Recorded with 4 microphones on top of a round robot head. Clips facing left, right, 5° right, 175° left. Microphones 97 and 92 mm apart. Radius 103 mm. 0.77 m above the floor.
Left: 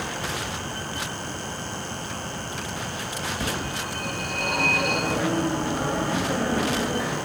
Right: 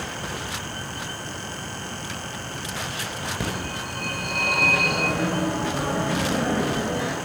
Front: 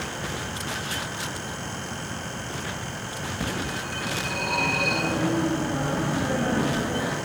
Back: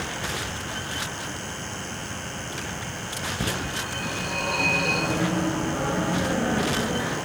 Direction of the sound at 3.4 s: 120° right.